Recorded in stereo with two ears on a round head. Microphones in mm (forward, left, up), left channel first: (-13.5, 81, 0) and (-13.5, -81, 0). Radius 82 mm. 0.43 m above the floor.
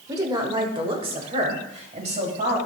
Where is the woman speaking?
20° right (ahead or behind), 1.2 m; by 2.6 s 40° right (ahead or behind), 2.5 m.